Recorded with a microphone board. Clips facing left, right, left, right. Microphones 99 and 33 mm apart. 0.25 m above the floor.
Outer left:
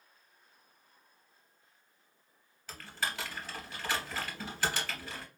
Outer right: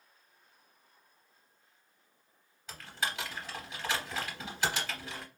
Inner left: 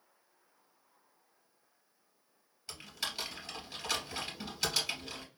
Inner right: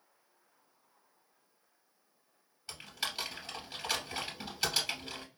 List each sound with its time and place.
2.7 s typing on a keyboard: 15° right (ahead or behind), 2.5 m